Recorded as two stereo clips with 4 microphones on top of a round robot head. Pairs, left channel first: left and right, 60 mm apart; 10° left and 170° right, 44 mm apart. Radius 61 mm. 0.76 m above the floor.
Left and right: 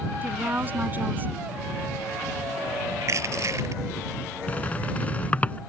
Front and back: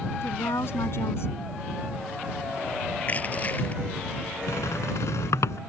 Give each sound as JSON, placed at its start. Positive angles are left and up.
{"t": 0.2, "sound": "a woman speaking", "azimuth_deg": -30}
{"t": 3.0, "sound": "crushing", "azimuth_deg": -55}
{"t": 4.5, "sound": "a squeak", "azimuth_deg": 25}